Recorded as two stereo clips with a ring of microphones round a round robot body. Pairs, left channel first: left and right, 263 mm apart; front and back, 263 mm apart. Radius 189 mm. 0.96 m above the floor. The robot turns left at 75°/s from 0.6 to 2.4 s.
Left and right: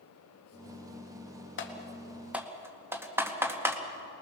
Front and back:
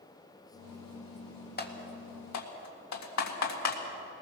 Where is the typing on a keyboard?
50° left, 2 m; by 3.8 s 10° right, 2 m.